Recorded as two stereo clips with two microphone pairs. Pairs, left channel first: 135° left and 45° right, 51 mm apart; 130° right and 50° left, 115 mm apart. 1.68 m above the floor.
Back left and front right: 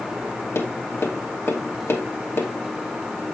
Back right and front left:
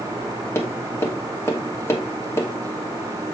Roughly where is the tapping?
Behind.